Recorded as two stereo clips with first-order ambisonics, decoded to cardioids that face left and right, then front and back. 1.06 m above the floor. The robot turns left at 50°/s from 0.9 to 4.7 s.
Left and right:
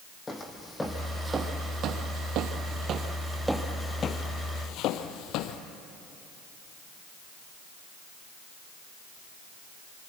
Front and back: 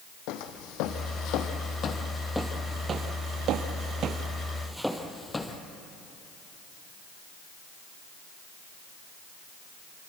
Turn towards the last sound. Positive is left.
turn(degrees=75)